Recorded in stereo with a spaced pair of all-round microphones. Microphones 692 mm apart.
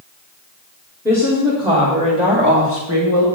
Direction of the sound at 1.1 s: 5° right (ahead or behind).